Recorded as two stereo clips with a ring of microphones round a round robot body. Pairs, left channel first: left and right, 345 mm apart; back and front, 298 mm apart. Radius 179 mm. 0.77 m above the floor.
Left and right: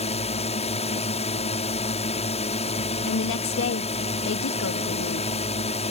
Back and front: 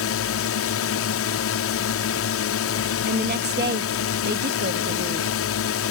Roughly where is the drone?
Behind.